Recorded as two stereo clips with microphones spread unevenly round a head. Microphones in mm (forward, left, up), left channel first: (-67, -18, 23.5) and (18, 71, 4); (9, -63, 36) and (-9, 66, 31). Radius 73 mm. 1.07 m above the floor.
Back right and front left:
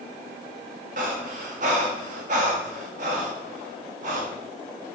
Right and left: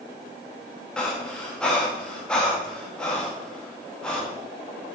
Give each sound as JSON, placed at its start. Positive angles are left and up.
{"t": 1.0, "sound": "breathing", "azimuth_deg": 0, "distance_m": 1.2}